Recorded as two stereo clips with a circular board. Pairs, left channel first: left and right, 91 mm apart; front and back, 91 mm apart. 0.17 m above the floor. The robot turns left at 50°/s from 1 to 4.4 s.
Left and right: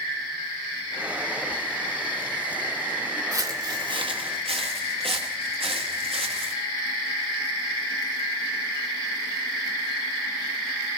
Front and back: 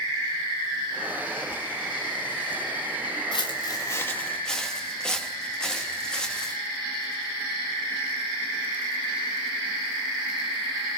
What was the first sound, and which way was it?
Footsteps, 35° right.